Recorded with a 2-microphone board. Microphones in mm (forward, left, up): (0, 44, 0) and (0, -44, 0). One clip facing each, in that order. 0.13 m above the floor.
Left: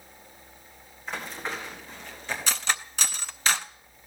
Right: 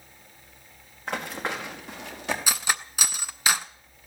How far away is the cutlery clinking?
About 0.6 m.